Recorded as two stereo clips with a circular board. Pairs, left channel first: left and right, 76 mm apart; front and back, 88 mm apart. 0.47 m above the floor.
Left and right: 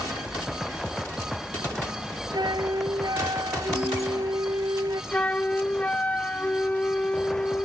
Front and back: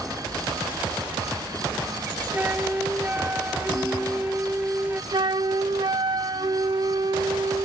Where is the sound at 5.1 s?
155° left.